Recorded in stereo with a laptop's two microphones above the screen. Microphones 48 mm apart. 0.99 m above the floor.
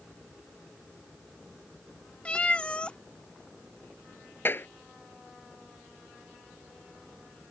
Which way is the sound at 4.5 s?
45° left (ahead or behind).